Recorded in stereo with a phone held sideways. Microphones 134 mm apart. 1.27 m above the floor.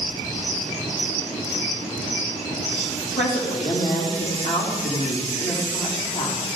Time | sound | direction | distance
3.2 | a woman speaking | 65° left (ahead or behind) | 3 m